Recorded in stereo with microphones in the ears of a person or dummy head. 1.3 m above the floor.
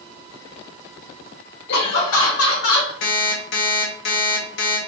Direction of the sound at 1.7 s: 60° left (ahead or behind).